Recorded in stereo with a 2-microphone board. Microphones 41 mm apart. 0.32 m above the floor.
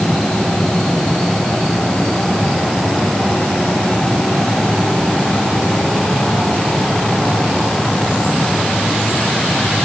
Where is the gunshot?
I don't hear a gunshot.